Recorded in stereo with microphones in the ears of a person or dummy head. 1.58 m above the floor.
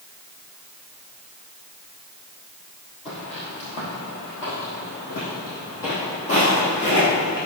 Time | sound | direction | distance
3.0 | footsteps | 30° left (ahead or behind) | 3 m